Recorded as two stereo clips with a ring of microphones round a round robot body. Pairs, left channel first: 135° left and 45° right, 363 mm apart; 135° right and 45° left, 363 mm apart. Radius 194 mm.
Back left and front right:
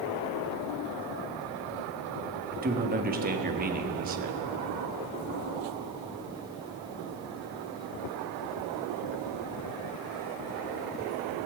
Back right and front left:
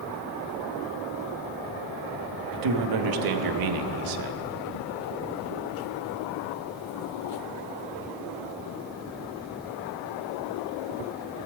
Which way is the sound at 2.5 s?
20° left.